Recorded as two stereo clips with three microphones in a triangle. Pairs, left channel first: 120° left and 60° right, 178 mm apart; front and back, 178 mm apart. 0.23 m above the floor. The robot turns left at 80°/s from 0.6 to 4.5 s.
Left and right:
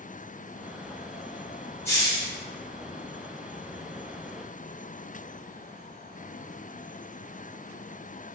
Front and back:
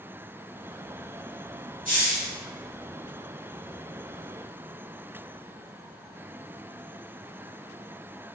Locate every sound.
1.9 s a hiss: 170° right, 0.8 m; by 2.3 s 150° left, 0.8 m